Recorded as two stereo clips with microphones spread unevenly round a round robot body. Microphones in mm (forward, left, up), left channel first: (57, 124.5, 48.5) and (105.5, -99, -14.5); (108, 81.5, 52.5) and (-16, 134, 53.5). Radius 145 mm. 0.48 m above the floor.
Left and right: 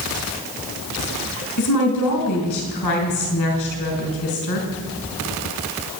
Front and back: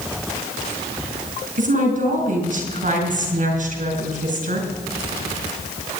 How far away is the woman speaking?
About 3.5 m.